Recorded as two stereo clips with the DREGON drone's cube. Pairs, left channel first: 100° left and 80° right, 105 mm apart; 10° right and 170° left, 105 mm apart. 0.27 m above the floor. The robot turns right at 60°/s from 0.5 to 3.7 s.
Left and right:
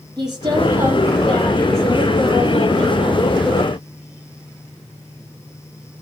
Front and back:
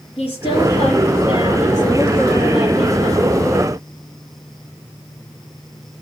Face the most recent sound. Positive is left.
turn(degrees=165)